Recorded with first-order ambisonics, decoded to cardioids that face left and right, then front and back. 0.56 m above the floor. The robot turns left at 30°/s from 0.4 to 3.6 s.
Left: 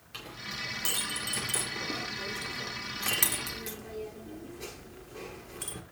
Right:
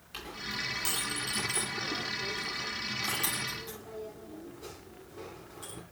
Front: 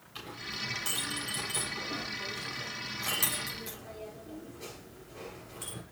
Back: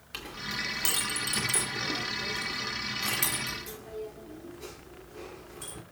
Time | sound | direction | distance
0.1 | a clink | 175° right | 5.5 m